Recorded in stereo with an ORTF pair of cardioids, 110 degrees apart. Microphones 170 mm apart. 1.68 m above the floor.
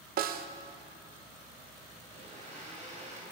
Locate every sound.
0.2 s a snare drum: 60° right, 0.9 m
2.1 s a blender: 45° right, 4 m